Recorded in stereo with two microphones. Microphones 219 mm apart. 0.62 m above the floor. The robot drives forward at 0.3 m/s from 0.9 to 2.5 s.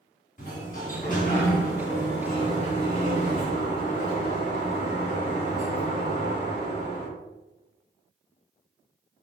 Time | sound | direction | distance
0.4 | a sliding door | 40° left (ahead or behind) | 1.8 m